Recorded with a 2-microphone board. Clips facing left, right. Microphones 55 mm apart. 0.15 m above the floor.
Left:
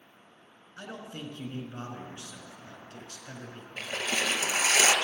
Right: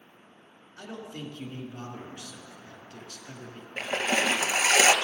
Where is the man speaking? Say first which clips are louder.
Right 1 dB; 30° left (ahead or behind), 1.8 m.